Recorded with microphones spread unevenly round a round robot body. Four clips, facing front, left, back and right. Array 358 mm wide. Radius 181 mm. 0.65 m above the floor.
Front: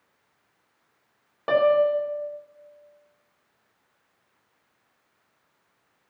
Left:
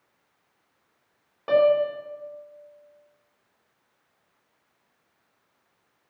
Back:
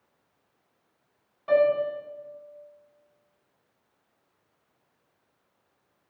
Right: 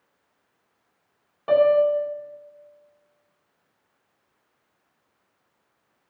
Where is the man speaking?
No man speaking in this recording.